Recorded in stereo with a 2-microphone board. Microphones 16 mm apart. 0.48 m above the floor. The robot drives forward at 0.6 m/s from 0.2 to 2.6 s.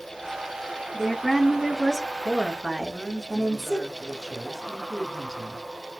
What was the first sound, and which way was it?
A woman speaking, 20° left (ahead or behind).